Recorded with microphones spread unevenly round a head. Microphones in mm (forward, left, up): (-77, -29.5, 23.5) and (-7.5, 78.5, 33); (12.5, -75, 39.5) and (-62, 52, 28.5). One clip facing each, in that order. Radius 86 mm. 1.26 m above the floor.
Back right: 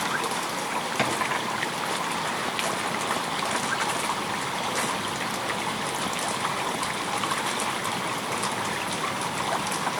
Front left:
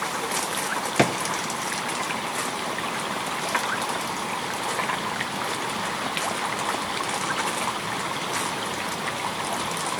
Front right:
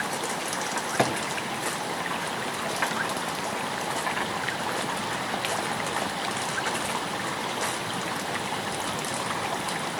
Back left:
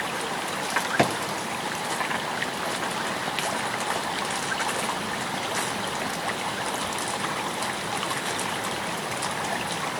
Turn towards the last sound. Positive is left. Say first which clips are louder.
# front left 7 dB, back left 2 dB
turn(degrees=45)